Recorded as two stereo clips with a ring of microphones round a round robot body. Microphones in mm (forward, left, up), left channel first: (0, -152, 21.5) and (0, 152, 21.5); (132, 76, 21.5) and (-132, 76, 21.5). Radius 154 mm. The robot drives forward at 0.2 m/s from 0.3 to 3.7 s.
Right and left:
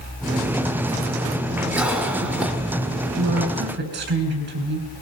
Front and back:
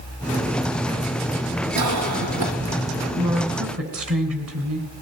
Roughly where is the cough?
Behind.